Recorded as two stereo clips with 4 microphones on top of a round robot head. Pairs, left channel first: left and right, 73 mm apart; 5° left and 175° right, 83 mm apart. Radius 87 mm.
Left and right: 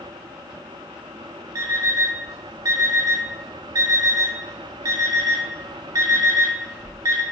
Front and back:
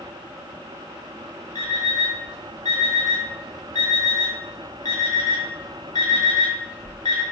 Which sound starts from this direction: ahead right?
An alarm clock, at 1.6 s.